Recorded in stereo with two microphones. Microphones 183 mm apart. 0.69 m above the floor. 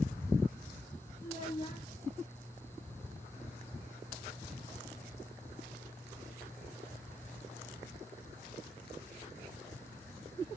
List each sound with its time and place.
1.2 s a child speaking: 45° left (ahead or behind), 0.8 m